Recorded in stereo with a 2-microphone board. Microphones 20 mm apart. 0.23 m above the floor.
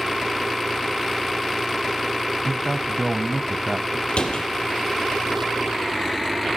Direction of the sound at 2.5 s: 15° right (ahead or behind).